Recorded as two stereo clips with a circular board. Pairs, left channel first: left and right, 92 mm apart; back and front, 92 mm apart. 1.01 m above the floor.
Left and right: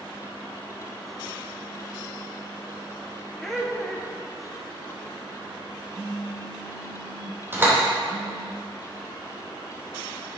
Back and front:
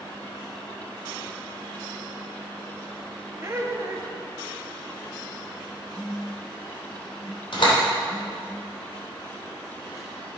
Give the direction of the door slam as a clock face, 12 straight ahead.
5 o'clock.